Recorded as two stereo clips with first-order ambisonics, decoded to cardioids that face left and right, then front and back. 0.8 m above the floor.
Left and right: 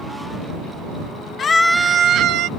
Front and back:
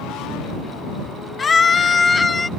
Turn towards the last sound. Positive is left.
turn(degrees=-75)